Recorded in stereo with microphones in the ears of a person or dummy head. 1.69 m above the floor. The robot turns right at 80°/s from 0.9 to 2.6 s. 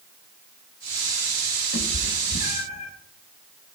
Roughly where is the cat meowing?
Left.